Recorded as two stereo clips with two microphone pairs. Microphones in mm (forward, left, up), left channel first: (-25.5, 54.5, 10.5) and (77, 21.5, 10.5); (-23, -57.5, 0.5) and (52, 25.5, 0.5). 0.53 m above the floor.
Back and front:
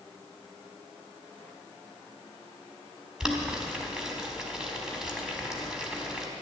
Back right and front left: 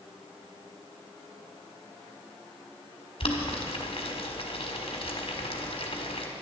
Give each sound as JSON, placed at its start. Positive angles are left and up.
{"t": 3.2, "sound": "boiling", "azimuth_deg": -100, "distance_m": 1.7}